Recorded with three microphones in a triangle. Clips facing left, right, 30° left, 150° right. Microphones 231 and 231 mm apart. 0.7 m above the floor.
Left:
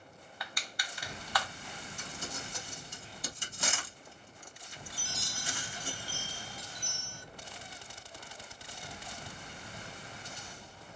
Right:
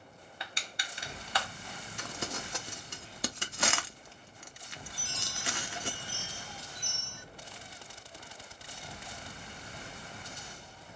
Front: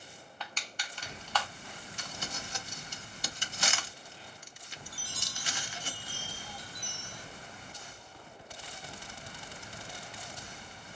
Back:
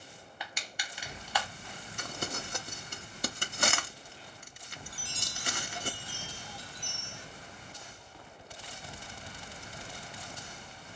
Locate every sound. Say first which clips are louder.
0.4 s crushing: even, back 1 dB; 85° right, 0.9 m
2.0 s crumpling: right 6 dB, back 6 dB; 110° right, 0.7 m
4.9 s a chime: left 1 dB, back 1 dB; 145° left, 0.8 m